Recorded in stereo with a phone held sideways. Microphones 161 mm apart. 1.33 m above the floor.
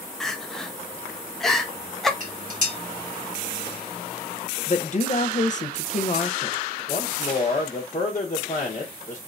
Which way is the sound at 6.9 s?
55° left (ahead or behind).